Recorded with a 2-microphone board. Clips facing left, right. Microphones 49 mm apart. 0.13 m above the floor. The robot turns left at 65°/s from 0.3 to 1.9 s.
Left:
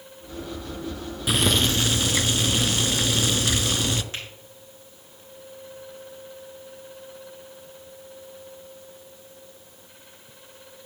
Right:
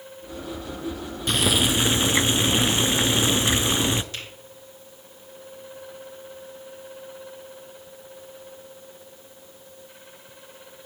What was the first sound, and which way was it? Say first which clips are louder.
Boiling: even; 10° left.